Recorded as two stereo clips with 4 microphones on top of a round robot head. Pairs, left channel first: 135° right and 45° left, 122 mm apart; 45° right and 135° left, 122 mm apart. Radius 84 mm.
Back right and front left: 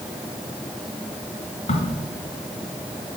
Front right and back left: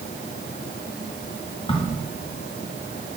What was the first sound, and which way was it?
A crack, 95° right.